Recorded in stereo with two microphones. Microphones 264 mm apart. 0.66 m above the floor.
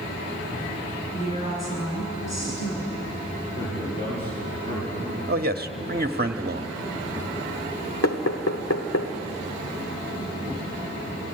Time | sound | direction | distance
1.1 | a woman speaking | 75° left (ahead or behind) | 8.5 m
3.5 | a man speaking | 20° left (ahead or behind) | 8 m
5.3 | a man speaking | 35° right (ahead or behind) | 1.2 m
8.0 | knocking | 70° left (ahead or behind) | 1.6 m